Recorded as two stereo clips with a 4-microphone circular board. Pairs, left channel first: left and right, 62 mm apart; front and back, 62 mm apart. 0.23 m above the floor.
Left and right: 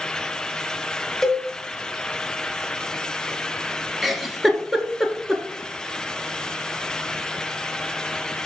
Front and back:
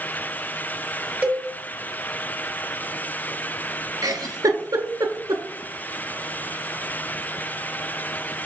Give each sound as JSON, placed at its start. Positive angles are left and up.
{"t": 1.2, "sound": "a cowbell", "azimuth_deg": 170, "distance_m": 1.0}
{"t": 4.0, "sound": "a giggle", "azimuth_deg": 180, "distance_m": 0.9}